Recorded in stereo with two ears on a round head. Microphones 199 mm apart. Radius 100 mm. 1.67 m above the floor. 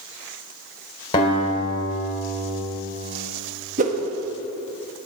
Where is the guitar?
25° left (ahead or behind), 3 m.